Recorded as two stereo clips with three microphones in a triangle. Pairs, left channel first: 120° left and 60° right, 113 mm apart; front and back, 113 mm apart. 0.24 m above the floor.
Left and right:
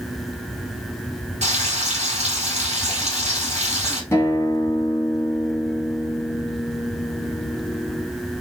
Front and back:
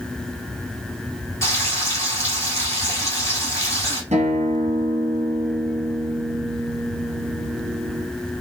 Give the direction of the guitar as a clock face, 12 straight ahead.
6 o'clock.